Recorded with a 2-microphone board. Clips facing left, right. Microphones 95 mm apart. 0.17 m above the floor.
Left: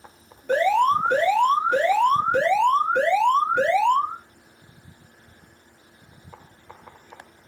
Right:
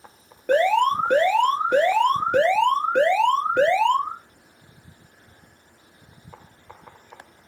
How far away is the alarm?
About 1.9 m.